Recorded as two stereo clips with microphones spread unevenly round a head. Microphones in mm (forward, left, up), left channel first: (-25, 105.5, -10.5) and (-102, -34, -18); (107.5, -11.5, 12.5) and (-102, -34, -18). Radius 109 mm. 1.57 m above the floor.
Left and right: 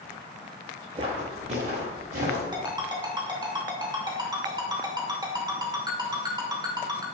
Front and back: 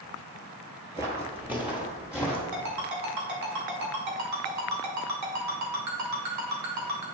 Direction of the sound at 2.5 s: 175° left.